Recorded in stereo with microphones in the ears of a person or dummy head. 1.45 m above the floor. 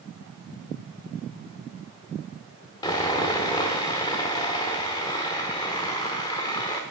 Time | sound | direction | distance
2.8 | sawing | 20° left (ahead or behind) | 1.2 m